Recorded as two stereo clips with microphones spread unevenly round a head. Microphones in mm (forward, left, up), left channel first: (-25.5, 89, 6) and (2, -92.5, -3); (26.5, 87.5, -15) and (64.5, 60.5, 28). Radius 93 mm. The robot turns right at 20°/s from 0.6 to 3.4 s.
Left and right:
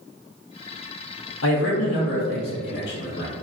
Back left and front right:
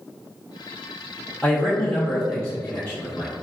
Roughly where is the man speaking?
Left.